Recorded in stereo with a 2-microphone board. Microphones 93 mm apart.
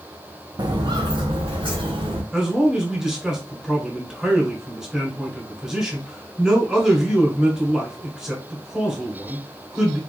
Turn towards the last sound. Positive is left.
turn(degrees=-5)  # may be behind; listen again after turning